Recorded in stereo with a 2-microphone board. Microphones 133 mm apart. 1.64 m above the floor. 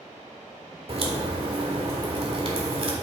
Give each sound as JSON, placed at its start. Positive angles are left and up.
{"t": 0.9, "sound": "a crack", "side_deg": -45, "distance_m": 1.7}